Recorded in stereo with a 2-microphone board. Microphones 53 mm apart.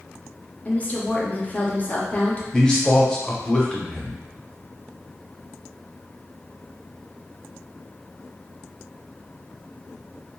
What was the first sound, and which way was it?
A woman speaking, 25° left (ahead or behind).